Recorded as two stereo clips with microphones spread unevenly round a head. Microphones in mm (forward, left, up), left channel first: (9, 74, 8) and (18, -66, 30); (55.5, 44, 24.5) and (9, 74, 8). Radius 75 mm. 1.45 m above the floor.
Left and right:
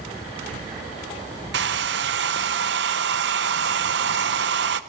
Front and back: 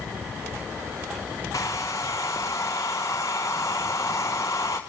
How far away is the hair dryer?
About 1.0 m.